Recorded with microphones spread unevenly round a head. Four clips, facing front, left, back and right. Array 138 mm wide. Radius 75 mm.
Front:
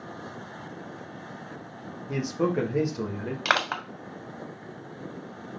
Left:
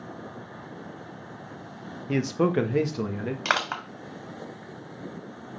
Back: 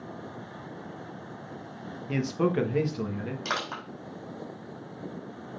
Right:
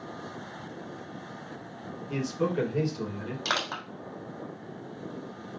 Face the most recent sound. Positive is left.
turn(degrees=35)